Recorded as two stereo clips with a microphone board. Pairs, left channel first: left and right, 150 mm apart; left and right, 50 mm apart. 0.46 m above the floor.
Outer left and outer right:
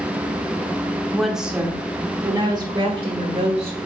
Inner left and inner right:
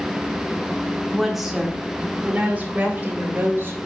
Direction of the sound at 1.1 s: Centre (ahead or behind).